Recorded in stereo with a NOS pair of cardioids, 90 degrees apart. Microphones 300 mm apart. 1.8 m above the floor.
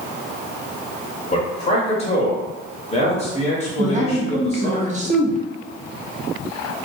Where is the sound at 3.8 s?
25° right, 0.7 m.